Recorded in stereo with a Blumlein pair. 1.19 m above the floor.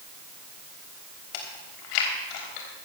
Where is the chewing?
40° left, 3 m.